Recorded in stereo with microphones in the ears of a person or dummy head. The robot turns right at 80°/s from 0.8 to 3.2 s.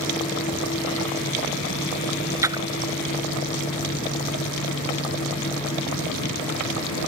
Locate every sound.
2.4 s a splash: 15° right (ahead or behind); by 2.9 s 55° right (ahead or behind)